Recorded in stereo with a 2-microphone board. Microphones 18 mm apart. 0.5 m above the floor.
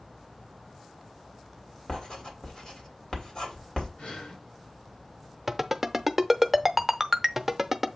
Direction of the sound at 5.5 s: 15° right (ahead or behind).